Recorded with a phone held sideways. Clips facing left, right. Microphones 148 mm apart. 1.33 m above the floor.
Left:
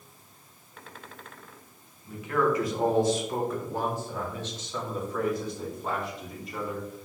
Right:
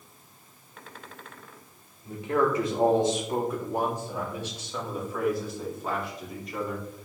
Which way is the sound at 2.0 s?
30° right (ahead or behind).